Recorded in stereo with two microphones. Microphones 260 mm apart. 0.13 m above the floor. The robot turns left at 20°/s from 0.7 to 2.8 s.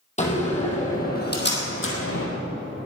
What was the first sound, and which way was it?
A door slam, 25° left (ahead or behind).